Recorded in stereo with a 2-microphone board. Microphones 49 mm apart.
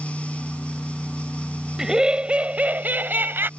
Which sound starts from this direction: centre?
Laughter, at 1.8 s.